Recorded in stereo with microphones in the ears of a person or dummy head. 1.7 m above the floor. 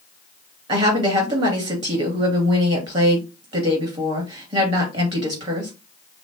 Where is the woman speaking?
30° right (ahead or behind), 2.5 m.